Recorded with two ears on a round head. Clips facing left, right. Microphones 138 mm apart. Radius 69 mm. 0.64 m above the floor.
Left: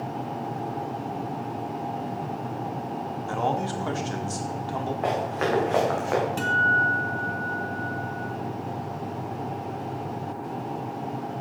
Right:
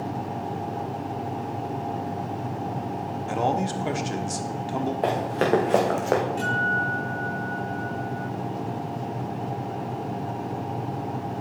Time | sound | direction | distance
3.3 | a man speaking | 20° right (ahead or behind) | 1.1 m
5.0 | running footsteps | 35° right (ahead or behind) | 4 m
6.4 | a guitar | 70° left (ahead or behind) | 4.5 m